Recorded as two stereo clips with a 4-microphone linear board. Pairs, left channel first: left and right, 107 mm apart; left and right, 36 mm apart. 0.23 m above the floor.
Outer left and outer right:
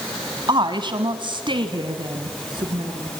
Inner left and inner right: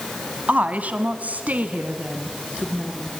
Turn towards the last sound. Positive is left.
turn(degrees=-45)  # may be behind; listen again after turning